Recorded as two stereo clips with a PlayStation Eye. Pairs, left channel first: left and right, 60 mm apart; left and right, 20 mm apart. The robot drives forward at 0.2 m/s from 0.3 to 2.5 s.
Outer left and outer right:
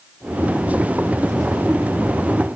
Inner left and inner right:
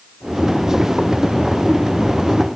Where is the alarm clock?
I don't hear an alarm clock.